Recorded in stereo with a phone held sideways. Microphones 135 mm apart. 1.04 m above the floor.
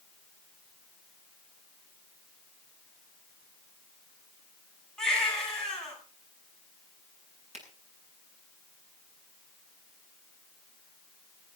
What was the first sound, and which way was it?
A baby crying, 5° left (ahead or behind).